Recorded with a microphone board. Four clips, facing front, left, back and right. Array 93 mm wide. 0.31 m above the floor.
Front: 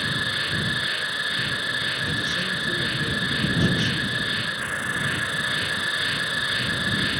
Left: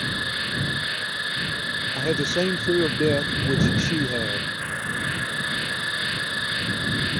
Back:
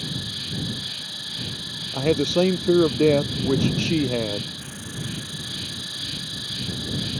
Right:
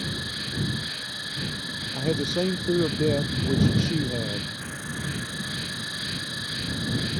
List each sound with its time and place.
0.0 s an insect: 35° left
1.9 s a man speaking: 175° left